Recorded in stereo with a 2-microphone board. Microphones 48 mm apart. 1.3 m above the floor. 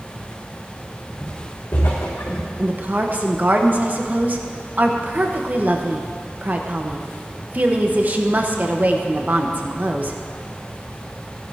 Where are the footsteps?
60° left (ahead or behind), 4.5 m; by 2.5 s 65° left (ahead or behind), 4 m.